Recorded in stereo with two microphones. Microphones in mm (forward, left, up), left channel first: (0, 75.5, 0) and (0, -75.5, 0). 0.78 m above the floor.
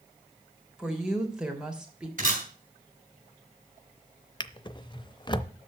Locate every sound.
0.8 s a woman speaking: 5° right (ahead or behind), 3 m
2.2 s a camera shutter: 60° right (ahead or behind), 4 m
4.4 s a drawer: 30° left (ahead or behind), 0.6 m